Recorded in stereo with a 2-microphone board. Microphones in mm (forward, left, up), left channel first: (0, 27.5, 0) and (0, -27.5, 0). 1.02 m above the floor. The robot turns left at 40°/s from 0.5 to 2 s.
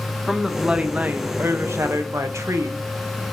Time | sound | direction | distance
0.3 | a woman speaking | 10° right | 0.7 m